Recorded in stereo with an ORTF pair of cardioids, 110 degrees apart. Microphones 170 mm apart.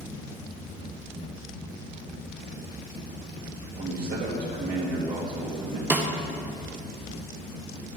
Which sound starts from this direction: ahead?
A snare drum, at 5.9 s.